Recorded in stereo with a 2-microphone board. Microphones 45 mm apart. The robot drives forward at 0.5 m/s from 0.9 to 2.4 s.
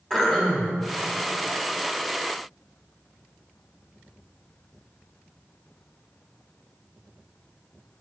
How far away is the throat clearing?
About 1.7 m.